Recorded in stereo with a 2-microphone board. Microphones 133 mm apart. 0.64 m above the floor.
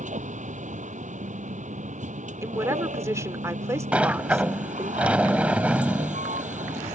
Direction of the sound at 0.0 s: 65° right (ahead or behind).